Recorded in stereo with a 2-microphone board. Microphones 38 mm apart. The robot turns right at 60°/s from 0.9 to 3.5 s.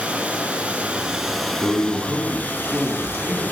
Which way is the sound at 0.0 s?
25° right.